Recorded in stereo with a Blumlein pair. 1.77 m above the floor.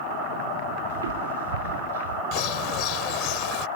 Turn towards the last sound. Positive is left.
turn(degrees=40)